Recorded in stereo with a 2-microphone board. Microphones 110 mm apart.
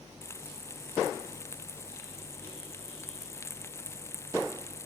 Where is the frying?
25° left (ahead or behind).